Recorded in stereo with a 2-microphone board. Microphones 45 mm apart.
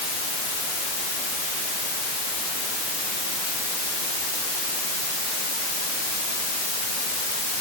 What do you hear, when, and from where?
Only background noise.